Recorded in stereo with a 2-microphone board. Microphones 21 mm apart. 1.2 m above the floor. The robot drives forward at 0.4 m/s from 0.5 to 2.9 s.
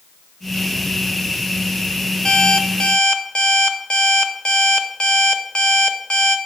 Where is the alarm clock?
45° left (ahead or behind), 0.6 m; by 6.4 s 55° left (ahead or behind), 0.5 m.